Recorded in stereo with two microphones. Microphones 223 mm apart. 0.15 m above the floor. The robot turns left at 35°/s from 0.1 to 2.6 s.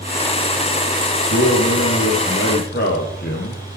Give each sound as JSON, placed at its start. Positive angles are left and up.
{"t": 1.3, "sound": "a man speaking", "azimuth_deg": 90, "distance_m": 4.5}